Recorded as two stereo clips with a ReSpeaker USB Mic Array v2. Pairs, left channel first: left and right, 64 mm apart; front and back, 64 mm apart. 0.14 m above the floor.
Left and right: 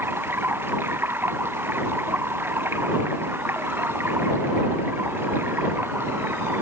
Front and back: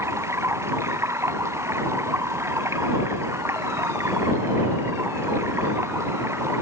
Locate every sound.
0.0 s running water: 140° right